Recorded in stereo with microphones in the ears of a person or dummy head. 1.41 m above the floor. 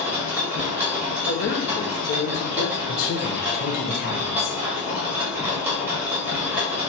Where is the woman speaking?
50° left (ahead or behind), 0.7 m.